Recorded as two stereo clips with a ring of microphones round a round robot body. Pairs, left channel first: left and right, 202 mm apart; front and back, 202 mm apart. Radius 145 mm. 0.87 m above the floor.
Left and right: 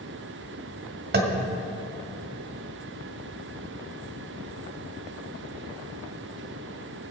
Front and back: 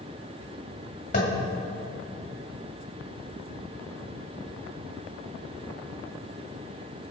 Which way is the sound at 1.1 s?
60° right.